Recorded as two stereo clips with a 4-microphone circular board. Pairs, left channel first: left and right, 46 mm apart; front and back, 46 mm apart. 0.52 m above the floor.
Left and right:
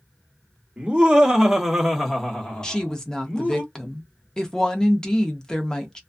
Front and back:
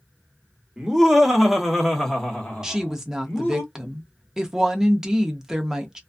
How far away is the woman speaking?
About 0.6 m.